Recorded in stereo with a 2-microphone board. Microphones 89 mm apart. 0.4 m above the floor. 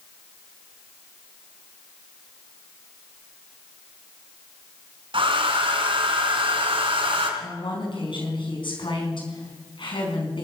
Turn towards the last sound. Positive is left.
turn(degrees=65)  # may be behind; listen again after turning